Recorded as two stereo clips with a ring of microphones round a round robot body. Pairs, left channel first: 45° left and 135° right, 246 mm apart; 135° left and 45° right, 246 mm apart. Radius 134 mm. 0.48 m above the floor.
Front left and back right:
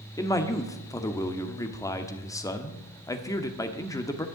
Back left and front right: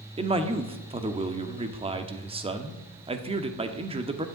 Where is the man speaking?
15° right, 1.2 m.